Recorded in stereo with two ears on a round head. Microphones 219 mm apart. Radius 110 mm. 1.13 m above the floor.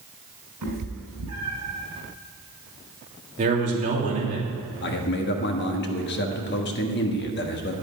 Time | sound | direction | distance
0.6 | a cat meowing | 75° right (ahead or behind) | 5 m
3.4 | a man speaking | 30° right (ahead or behind) | 3 m
4.8 | a man speaking | 45° left (ahead or behind) | 1.5 m